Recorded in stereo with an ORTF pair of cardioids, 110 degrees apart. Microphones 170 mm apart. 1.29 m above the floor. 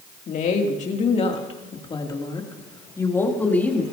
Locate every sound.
0.3 s a woman speaking: 50° left, 2.5 m; by 3.8 s 5° left, 3 m